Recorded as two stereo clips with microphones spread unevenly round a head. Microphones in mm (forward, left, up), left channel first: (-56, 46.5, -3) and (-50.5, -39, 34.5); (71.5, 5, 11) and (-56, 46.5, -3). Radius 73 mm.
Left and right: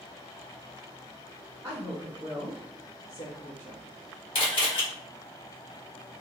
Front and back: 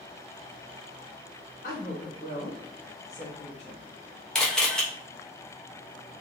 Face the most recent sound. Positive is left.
turn(degrees=70)